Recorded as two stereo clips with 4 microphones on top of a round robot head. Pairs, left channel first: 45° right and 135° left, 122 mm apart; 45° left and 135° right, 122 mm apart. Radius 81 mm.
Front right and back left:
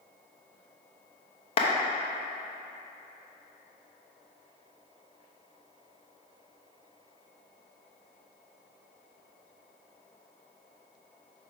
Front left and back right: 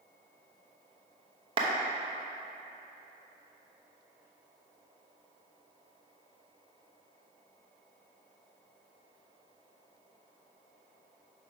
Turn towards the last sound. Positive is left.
turn(degrees=-85)